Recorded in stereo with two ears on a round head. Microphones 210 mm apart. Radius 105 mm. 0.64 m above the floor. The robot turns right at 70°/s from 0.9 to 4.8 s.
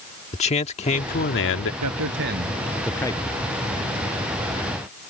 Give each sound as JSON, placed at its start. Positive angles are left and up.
{"t": 0.3, "sound": "a man speaking", "azimuth_deg": 35}
{"t": 1.8, "sound": "a man speaking", "azimuth_deg": -75}